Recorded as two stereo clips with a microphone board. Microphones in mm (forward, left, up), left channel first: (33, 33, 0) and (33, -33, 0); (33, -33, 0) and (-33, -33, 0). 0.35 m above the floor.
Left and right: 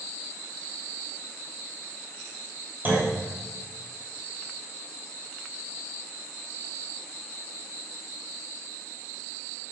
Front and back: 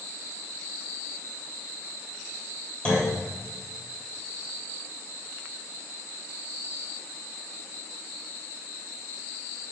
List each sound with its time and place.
2.9 s a clunk: 60° right, 1.2 m